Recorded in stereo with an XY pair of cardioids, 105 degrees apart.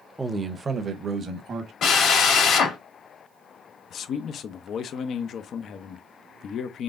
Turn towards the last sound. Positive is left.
turn(degrees=60)